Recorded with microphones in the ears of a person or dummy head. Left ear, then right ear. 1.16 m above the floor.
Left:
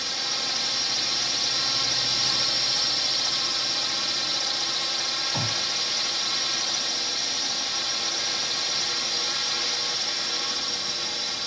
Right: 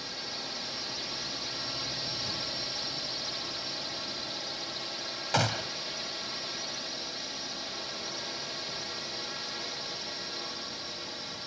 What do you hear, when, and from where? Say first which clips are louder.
0.0 s a drone: left 10 dB; 45° left (ahead or behind)
5.3 s a gunshot: left 3 dB; 70° right (ahead or behind)